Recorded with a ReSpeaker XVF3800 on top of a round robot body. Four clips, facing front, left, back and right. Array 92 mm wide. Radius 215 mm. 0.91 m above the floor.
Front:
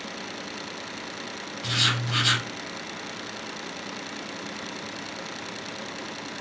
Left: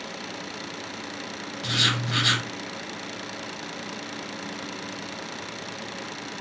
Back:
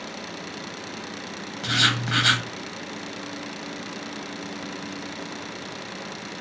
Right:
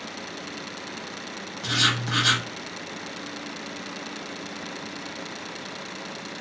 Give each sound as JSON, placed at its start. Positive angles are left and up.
{"t": 1.6, "sound": "writing", "azimuth_deg": -170, "distance_m": 0.8}